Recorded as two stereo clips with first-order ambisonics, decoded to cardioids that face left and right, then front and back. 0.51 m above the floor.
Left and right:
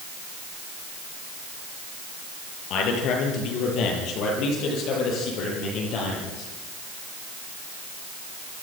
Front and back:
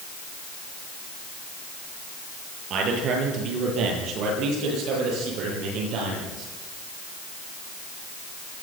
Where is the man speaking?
130° left, 8.5 m; by 6.5 s 135° left, 14.5 m.